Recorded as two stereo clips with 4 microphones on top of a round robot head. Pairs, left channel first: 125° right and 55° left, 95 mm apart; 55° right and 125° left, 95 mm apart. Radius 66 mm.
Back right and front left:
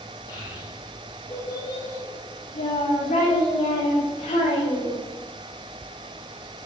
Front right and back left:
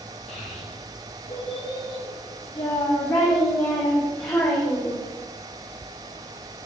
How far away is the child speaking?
About 3 m.